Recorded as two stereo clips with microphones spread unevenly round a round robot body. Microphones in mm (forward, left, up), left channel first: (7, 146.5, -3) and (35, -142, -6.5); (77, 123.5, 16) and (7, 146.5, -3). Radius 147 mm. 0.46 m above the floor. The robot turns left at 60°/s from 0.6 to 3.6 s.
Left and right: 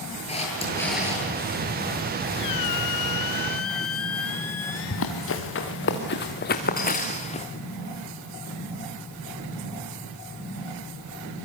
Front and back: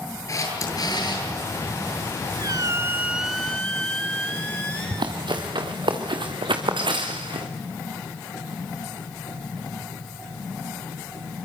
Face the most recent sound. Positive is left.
turn(degrees=165)